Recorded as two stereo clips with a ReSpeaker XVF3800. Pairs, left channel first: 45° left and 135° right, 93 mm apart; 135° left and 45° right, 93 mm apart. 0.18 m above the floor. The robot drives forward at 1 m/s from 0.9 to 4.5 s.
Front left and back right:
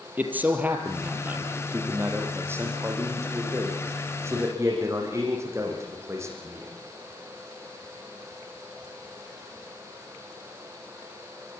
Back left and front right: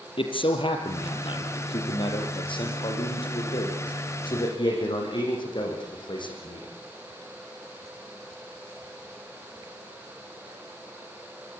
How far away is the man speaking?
About 4.5 m.